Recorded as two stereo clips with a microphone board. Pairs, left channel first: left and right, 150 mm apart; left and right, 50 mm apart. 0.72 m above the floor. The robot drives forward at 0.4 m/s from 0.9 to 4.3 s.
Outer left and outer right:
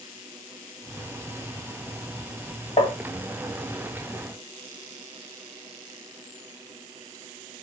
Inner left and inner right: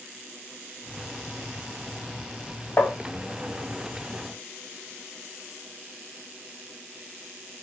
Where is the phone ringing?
No phone ringing in this recording.